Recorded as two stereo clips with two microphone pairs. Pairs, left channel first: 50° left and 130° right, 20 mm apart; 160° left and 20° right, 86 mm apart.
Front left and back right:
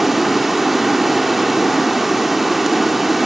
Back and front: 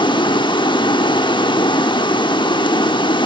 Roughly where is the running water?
Behind left.